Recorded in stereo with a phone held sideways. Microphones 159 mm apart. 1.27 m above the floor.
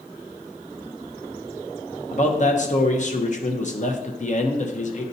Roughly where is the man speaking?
Left.